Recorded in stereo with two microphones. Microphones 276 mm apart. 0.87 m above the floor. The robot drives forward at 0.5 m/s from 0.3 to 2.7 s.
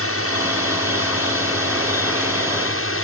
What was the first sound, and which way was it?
A drone, 55° left (ahead or behind).